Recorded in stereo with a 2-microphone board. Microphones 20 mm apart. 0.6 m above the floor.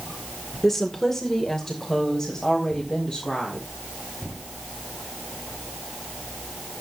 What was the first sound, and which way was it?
A woman speaking, 15° left (ahead or behind).